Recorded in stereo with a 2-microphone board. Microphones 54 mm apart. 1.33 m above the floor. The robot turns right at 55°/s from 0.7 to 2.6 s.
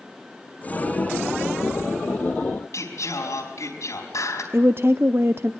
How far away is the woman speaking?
About 0.6 m.